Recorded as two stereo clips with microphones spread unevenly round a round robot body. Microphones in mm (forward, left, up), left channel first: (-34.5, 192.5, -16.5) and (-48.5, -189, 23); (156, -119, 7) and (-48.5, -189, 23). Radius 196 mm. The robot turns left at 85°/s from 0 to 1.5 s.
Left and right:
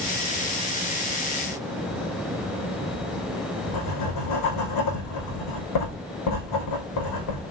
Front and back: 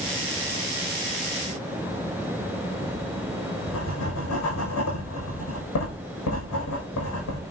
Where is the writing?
45° left, 7.5 m.